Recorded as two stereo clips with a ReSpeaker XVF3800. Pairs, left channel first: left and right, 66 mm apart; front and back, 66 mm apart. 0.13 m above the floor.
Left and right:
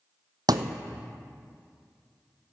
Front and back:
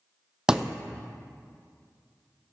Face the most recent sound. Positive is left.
turn(degrees=-100)